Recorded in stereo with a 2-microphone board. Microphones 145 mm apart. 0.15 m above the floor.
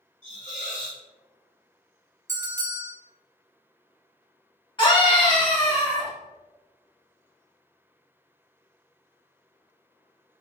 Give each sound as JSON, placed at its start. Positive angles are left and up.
{"t": 0.2, "sound": "a hiss", "side_deg": 55, "distance_m": 1.2}
{"t": 2.3, "sound": "a bell", "side_deg": -20, "distance_m": 1.2}
{"t": 4.8, "sound": "a scream", "side_deg": 35, "distance_m": 1.3}